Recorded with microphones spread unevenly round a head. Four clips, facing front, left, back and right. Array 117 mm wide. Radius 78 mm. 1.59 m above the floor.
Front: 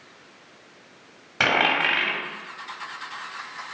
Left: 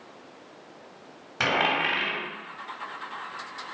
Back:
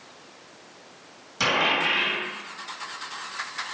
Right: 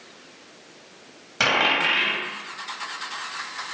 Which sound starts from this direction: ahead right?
A dropped coin, at 1.4 s.